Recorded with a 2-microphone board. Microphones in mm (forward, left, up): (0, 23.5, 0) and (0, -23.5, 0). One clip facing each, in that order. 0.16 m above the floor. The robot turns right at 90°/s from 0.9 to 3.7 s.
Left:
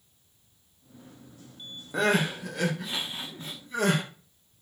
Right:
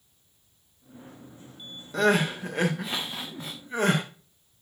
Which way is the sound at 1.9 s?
165° left.